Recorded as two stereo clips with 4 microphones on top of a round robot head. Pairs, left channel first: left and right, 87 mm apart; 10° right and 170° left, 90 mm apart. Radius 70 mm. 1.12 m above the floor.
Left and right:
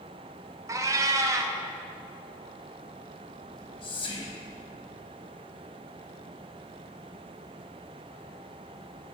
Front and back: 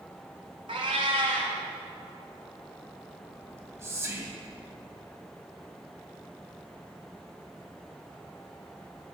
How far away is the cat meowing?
About 0.6 m.